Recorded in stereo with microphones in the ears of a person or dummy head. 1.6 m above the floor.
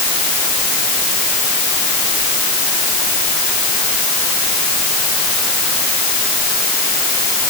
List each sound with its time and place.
Only background noise.